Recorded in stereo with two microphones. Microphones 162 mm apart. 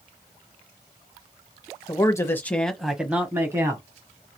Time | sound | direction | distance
1.9 | a man speaking | 25° left (ahead or behind) | 1.1 m